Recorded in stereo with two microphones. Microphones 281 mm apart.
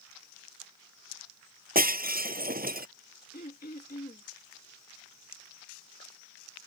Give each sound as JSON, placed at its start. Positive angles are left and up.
{"t": 1.8, "sound": "breaking glass", "side_deg": -30}
{"t": 3.3, "sound": "throat clearing", "side_deg": 30}